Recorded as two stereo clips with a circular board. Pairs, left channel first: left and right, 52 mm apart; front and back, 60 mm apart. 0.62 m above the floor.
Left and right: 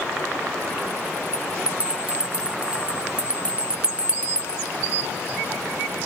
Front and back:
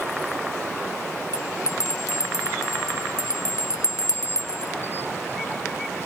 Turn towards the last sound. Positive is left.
turn(degrees=-20)